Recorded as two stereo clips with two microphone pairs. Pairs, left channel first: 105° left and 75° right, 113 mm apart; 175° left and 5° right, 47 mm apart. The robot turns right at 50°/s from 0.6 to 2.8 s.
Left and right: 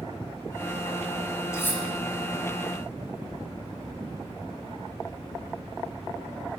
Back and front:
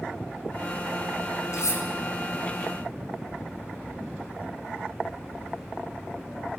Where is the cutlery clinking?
170° left, 2.0 m; by 1.8 s 175° right, 2.0 m.